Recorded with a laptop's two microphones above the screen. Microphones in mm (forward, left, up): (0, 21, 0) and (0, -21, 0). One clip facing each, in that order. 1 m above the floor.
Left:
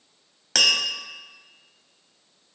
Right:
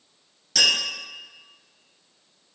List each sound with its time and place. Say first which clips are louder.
0.6 s tapping: left 1 dB; 65° left (ahead or behind), 1.2 m